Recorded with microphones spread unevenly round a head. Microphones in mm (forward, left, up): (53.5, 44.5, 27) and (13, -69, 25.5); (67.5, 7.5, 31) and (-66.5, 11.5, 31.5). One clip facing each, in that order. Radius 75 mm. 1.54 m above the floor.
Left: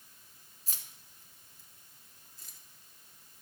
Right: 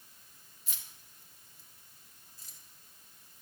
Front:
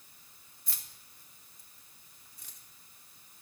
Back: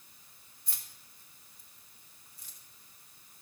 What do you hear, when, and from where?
0.7 s keys jangling: 20° left, 2 m; by 2.6 s 35° left, 3 m